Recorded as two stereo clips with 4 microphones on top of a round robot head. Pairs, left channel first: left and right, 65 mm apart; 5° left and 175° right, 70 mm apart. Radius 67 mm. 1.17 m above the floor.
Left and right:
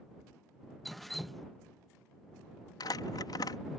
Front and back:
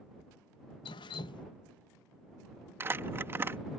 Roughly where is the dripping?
Ahead.